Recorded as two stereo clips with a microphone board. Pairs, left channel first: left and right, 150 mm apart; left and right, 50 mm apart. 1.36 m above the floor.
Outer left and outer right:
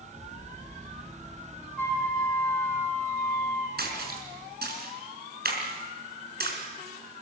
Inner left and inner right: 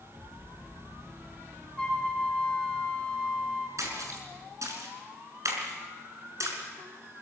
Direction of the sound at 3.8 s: 75° right (ahead or behind).